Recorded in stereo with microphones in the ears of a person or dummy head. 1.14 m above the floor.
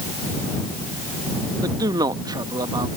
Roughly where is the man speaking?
Centre.